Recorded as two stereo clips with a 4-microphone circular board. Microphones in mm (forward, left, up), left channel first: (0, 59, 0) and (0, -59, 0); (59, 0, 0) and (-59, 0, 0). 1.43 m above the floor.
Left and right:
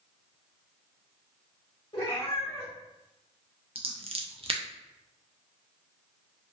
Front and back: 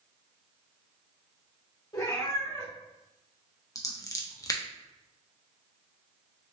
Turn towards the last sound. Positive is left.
turn(degrees=-60)